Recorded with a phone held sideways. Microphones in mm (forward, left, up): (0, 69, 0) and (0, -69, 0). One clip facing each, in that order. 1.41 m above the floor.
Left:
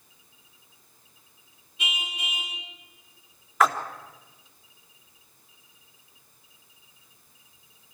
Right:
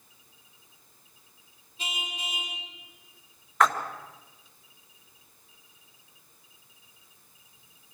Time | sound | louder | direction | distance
1.8 | a car horn | left 1 dB | 35° right (ahead or behind) | 7 m
3.6 | a splash | left 1 dB | 5° left (ahead or behind) | 1.7 m